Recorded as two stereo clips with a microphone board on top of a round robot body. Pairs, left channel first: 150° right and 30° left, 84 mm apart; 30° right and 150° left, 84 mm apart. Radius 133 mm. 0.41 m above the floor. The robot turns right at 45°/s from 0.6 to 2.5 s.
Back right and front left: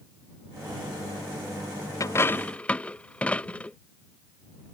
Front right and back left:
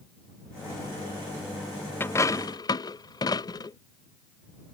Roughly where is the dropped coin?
Right.